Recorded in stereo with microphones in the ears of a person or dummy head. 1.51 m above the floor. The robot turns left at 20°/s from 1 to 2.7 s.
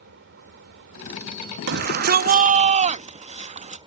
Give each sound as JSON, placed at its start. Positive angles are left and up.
{"t": 0.0, "sound": "an engine running", "azimuth_deg": -125}
{"t": 1.7, "sound": "a shout", "side_deg": -55}